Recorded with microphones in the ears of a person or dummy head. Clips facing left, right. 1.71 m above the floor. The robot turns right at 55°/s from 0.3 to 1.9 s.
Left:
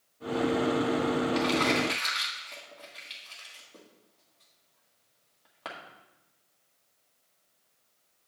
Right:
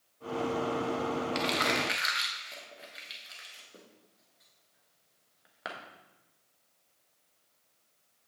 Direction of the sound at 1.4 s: 35° right (ahead or behind).